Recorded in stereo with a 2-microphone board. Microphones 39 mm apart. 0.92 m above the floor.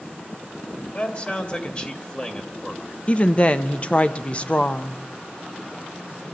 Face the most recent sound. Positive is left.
turn(degrees=30)  # may be behind; listen again after turning